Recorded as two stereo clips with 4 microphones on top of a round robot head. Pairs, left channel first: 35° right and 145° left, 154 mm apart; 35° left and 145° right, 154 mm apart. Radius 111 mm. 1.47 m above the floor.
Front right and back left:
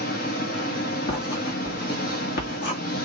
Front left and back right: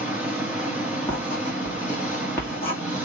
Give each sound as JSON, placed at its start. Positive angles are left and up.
{"t": 0.0, "sound": "an engine running", "azimuth_deg": -60, "distance_m": 1.1}
{"t": 1.1, "sound": "writing", "azimuth_deg": -40, "distance_m": 2.0}